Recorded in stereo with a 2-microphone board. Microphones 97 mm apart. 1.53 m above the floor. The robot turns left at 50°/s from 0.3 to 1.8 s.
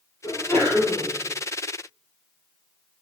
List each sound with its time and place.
0.2 s a sneeze: 40° left, 2.0 m; by 1.1 s straight ahead, 2.0 m